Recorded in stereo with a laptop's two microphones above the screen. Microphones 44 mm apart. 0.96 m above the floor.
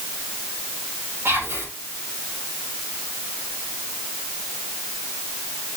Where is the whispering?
75° right (ahead or behind), 4 m.